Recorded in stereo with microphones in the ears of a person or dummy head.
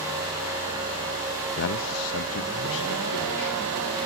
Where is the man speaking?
50° left (ahead or behind), 0.7 m; by 3.7 s 65° left (ahead or behind), 2.5 m.